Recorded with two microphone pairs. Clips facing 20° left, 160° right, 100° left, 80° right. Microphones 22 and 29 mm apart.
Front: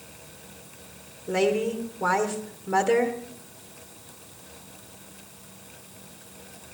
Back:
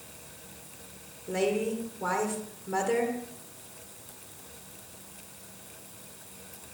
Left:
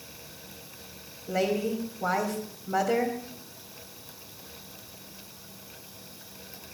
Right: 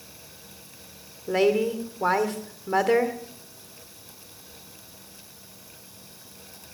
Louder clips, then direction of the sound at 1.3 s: Front 4 dB, right 6 dB; 50° right.